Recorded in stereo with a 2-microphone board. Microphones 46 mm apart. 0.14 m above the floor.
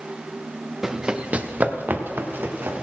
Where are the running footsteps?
10° right (ahead or behind), 0.9 m; by 2.8 s 60° right (ahead or behind), 2.5 m.